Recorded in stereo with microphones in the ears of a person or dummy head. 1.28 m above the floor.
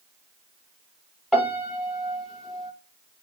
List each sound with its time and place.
1.3 s a piano: centre (ahead or behind), 0.8 m